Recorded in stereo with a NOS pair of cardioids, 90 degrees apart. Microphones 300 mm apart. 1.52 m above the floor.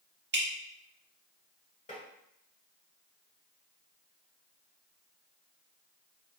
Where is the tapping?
25° left, 1.6 m.